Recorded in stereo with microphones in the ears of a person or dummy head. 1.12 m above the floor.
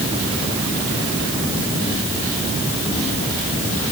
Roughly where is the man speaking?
No man speaking in this recording.